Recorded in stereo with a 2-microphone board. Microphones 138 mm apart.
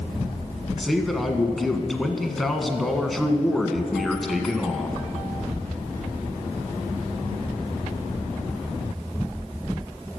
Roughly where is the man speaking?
Centre.